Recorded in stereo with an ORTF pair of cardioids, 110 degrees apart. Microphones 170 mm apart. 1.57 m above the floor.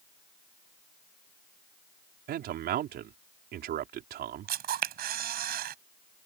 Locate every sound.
2.3 s a man speaking: 65° right
4.5 s a camera shutter: 65° right